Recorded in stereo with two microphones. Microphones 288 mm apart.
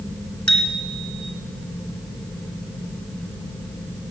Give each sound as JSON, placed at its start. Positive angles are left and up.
{"t": 0.5, "sound": "a bicycle bell", "side_deg": 70, "distance_m": 2.0}